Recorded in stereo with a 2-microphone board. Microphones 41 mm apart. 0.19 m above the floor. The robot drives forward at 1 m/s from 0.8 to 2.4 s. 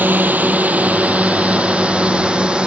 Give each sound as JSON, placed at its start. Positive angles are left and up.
{"t": 0.0, "sound": "a drone", "side_deg": -45}